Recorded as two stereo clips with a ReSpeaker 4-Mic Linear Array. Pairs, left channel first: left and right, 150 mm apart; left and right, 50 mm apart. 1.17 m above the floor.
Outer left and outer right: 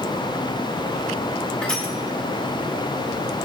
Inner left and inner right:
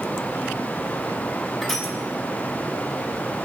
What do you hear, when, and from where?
1.6 s crushing: 5° left (ahead or behind), 2 m